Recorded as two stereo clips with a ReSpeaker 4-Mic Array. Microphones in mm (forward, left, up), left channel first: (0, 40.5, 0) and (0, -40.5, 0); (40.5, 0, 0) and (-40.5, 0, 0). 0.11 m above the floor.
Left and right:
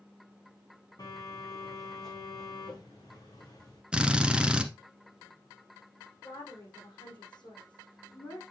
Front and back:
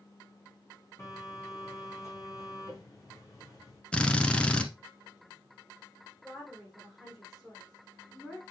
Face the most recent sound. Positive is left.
turn(degrees=90)